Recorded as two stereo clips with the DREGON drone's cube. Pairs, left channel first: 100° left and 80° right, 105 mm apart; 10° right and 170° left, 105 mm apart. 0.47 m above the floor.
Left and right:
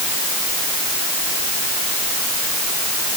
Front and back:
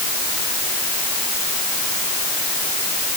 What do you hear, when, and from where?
Only background noise.